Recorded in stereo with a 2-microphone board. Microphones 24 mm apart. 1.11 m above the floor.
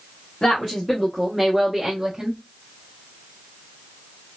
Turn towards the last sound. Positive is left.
turn(degrees=-40)  # may be behind; listen again after turning